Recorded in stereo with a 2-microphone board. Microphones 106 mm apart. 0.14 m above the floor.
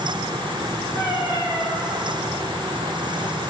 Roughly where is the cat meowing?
Left.